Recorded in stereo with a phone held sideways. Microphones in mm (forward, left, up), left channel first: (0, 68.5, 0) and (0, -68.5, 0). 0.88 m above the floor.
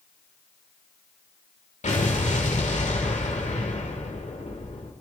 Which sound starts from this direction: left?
An explosion, at 1.8 s.